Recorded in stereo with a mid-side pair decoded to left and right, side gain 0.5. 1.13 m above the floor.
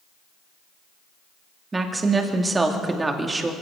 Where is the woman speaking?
25° right, 2 m.